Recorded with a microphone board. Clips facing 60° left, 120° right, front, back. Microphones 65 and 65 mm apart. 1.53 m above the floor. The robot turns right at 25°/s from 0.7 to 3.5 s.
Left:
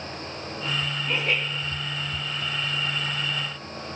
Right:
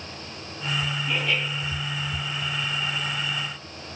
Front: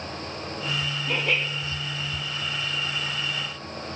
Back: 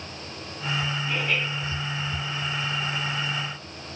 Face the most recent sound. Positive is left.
turn(degrees=65)